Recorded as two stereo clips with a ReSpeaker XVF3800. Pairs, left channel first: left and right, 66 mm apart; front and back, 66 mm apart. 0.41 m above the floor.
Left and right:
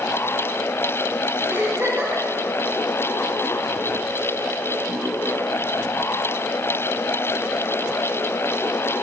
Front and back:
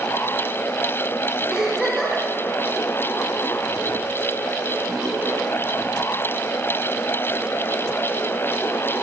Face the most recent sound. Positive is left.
turn(degrees=-105)